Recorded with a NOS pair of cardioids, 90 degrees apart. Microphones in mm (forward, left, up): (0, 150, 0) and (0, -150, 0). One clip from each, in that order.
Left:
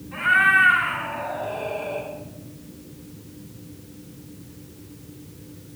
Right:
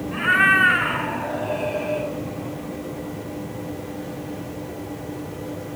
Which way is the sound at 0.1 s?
55° right.